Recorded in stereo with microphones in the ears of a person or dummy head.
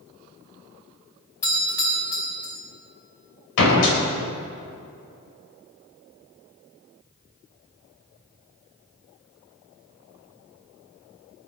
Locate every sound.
1.4 s a doorbell: 15° left (ahead or behind), 5 m
3.6 s a door slam: 75° left (ahead or behind), 4.5 m